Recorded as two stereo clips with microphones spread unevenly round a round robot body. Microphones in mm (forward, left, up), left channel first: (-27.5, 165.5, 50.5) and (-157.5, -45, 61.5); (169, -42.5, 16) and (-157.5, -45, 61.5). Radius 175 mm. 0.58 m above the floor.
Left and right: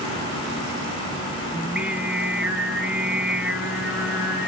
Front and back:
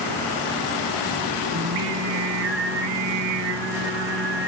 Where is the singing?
155° left, 1.6 m.